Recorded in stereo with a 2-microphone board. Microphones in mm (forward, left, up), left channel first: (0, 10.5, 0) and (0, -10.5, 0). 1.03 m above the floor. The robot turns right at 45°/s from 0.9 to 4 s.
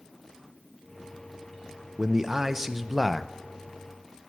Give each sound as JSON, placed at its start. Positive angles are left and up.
{"t": 2.0, "sound": "a man speaking", "azimuth_deg": -60, "distance_m": 0.7}